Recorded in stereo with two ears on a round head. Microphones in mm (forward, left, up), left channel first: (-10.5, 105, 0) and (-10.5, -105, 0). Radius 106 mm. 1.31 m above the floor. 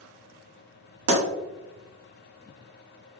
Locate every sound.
1.1 s a pop: 75° right (ahead or behind), 1.5 m